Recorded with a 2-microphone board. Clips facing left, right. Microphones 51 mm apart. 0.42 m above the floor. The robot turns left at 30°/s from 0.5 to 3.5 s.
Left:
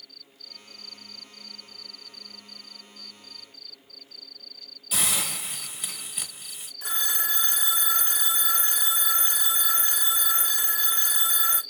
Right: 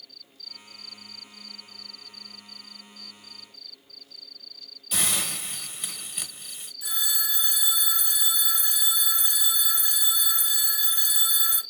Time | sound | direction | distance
4.9 | a hiss | 5° left (ahead or behind) | 0.9 m
6.8 | a phone ringing | 50° left (ahead or behind) | 0.6 m